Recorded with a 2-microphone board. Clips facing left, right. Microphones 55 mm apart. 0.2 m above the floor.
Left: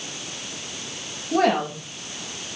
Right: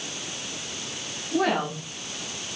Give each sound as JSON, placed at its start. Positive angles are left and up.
{"t": 1.3, "sound": "a woman speaking", "side_deg": 75, "distance_m": 7.5}